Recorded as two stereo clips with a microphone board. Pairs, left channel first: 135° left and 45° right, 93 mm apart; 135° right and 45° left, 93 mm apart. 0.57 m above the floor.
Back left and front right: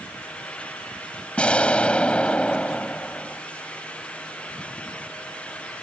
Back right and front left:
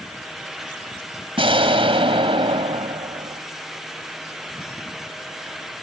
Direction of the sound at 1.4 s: 55° left.